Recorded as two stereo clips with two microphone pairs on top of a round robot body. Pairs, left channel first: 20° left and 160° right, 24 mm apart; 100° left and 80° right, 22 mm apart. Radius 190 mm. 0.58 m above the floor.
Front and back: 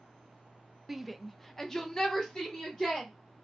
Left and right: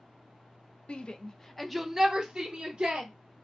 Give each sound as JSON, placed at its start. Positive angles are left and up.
{"t": 0.9, "sound": "a shout", "azimuth_deg": 110, "distance_m": 0.7}